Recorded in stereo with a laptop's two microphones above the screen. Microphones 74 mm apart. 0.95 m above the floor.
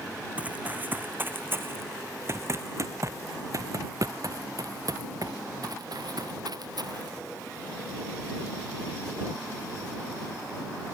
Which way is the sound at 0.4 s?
20° right (ahead or behind).